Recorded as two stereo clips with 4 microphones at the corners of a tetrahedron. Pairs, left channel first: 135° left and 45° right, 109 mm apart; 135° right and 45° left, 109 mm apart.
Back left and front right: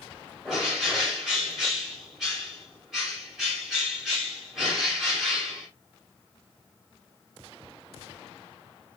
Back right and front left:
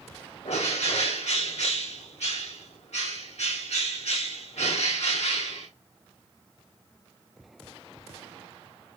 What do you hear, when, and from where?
0.5 s a bird: 130° right, 5.5 m